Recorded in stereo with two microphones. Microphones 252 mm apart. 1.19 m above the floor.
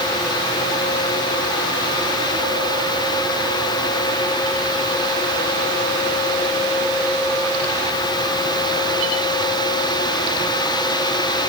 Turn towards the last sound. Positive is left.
No sound to turn to.